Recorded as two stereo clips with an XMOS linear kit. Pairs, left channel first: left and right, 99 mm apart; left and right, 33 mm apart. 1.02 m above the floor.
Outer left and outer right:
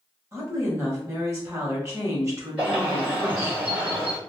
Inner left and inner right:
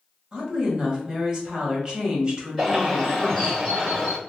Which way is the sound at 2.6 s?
15° right (ahead or behind).